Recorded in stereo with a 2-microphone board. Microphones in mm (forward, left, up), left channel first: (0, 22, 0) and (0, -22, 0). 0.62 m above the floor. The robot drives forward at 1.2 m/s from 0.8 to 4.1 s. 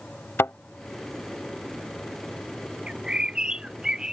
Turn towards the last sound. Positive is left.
turn(degrees=-15)  # may be behind; listen again after turning